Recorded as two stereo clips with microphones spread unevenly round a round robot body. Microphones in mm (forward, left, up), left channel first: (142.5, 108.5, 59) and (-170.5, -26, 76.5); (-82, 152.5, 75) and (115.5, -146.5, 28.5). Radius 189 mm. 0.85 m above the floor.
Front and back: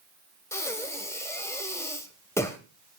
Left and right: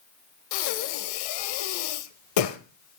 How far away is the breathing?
About 1.3 m.